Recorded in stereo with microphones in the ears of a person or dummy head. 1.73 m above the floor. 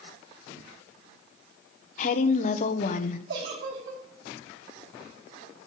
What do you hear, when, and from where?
2.0 s a woman speaking: 50° left (ahead or behind), 1.1 m
3.3 s a giggle: 85° right, 7 m